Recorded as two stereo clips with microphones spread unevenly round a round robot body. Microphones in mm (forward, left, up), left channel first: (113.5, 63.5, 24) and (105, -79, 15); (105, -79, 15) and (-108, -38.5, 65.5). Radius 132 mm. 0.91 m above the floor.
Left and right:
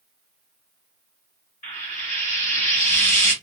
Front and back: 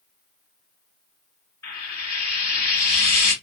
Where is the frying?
60° left, 1.8 m.